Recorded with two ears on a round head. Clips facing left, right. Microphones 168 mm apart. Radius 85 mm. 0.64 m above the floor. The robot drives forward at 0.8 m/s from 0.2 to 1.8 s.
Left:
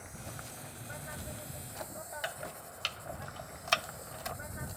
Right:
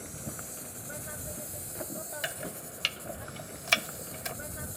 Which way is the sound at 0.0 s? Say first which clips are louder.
Right 5 dB; 45° right (ahead or behind).